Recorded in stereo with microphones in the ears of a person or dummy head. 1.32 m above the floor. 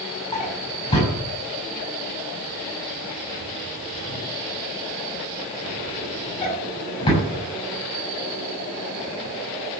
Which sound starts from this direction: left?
A drawer, at 0.3 s.